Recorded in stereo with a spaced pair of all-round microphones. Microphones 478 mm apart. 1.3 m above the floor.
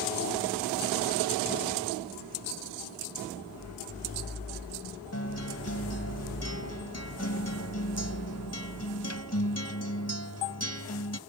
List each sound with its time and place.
5.1 s a guitar: 30° left (ahead or behind)